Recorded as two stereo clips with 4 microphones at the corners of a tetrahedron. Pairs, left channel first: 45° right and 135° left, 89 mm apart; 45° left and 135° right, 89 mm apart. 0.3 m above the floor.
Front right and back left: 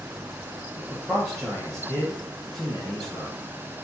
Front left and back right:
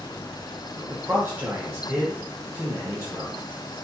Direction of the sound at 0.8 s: 125° right.